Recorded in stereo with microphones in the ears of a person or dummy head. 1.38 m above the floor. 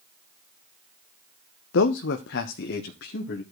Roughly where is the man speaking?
Left.